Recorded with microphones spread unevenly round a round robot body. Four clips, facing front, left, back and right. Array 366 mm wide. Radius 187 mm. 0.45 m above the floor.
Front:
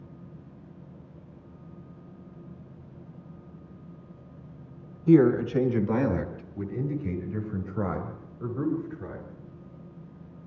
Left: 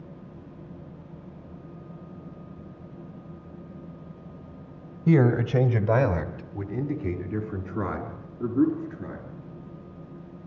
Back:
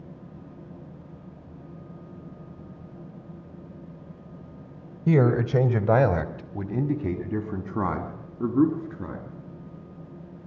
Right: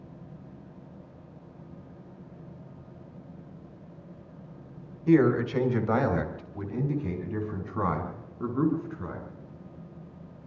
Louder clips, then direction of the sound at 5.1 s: Even, front 3 dB; 135° left.